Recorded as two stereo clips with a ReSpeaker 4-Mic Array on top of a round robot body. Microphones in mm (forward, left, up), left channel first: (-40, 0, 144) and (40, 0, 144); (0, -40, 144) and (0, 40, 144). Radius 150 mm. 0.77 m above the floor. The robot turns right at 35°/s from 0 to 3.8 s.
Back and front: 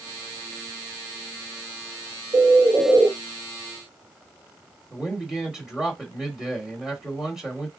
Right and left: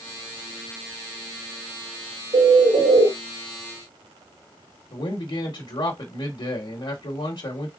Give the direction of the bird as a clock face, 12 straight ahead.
11 o'clock.